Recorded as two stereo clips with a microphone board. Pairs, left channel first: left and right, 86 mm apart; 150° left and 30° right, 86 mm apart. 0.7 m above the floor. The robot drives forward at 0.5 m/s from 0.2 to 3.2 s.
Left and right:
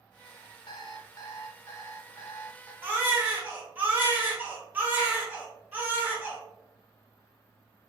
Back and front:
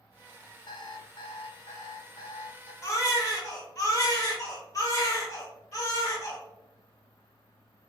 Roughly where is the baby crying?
Behind right.